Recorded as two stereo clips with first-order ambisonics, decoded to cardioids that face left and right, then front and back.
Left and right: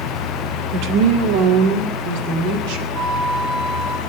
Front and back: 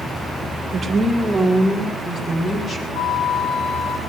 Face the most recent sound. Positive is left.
turn(degrees=-30)